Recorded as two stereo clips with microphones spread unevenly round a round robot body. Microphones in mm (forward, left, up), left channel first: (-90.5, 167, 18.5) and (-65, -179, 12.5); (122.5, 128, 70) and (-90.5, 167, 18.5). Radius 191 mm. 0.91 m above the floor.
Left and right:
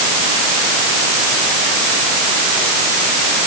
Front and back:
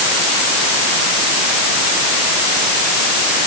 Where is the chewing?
No chewing in this recording.